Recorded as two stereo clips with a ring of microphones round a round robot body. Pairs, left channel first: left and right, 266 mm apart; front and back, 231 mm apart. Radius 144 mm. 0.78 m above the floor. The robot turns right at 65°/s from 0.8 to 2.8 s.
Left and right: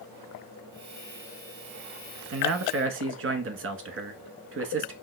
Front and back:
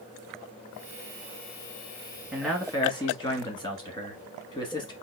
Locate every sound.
2.3 s a man speaking: 100° right, 1.2 m; by 4.9 s 65° right, 1.2 m